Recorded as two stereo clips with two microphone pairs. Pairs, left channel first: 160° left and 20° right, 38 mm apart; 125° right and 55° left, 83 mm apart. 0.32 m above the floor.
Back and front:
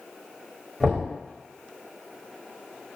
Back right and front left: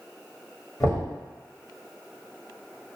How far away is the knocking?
About 1.3 m.